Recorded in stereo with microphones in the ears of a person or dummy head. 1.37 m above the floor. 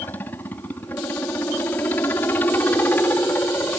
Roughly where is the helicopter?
Centre.